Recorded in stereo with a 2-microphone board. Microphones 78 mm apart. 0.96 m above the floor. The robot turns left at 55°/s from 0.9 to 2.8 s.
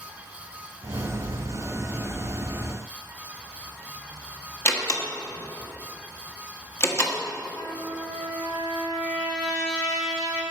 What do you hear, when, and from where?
4.7 s a door slam: 40° left (ahead or behind), 1.2 m
7.6 s a trumpet: 60° left (ahead or behind), 2 m